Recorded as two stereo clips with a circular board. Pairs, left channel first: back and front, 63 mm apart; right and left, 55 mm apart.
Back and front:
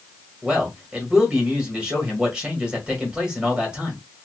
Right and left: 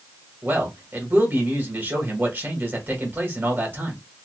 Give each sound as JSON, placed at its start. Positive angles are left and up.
{"t": 0.4, "sound": "a man speaking", "azimuth_deg": 70, "distance_m": 1.7}